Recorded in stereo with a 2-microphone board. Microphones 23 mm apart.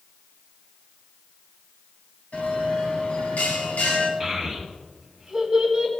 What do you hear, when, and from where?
2.3 s a bell: 60° left (ahead or behind), 3 m
4.2 s a child speaking: 10° right (ahead or behind), 3 m